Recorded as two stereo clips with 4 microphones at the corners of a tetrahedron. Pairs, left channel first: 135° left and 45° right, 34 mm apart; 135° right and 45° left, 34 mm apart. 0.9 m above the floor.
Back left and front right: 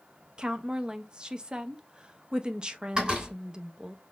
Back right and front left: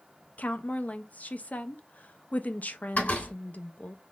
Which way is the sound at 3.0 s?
110° right.